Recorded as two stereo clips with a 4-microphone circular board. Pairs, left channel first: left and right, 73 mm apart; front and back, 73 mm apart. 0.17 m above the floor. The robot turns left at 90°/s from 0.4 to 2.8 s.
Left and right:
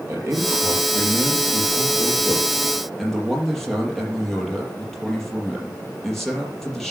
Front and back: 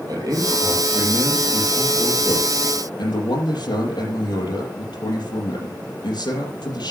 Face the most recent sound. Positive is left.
turn(degrees=5)